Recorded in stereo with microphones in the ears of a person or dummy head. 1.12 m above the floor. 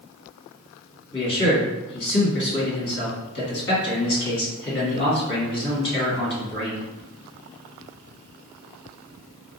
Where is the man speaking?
55° left (ahead or behind), 1.6 m.